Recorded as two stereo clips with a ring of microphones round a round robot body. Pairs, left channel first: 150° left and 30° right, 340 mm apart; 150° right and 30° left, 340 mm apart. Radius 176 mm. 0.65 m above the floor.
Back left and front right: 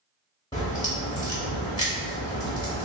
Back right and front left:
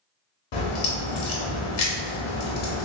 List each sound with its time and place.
0.5 s a crack: 130° right, 0.9 m